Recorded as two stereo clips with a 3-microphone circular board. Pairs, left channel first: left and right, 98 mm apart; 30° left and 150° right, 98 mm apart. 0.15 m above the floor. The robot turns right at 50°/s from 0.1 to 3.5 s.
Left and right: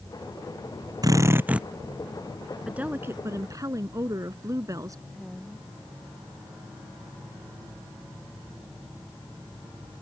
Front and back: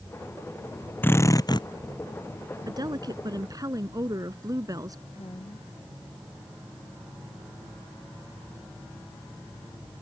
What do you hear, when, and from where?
1.0 s a drill: 40° right; by 1.7 s 10° right
2.7 s a woman speaking: 165° right; by 5.0 s 125° right
5.1 s a woman speaking: 5° left